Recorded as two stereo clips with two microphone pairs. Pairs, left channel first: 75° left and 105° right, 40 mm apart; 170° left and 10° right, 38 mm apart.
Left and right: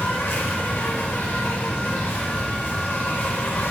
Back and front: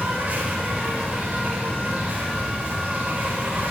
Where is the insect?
45° left, 5 m.